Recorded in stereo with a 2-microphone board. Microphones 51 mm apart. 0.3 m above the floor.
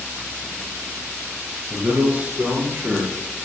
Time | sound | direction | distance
1.7 | a man speaking | 25° right (ahead or behind) | 5 m